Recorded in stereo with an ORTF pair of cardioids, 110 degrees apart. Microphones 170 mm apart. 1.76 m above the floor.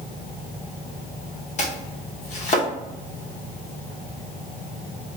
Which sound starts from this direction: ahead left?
Chopping, at 1.6 s.